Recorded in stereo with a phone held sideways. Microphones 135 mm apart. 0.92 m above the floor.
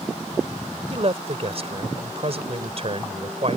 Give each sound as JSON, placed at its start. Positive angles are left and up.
{"t": 0.9, "sound": "a man speaking", "side_deg": -50}